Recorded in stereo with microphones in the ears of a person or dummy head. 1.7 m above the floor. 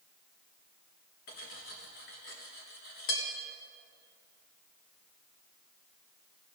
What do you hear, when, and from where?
1.3 s cutlery clinking: 40° left (ahead or behind), 1.1 m